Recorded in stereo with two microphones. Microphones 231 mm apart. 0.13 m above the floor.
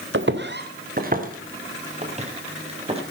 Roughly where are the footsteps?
Right.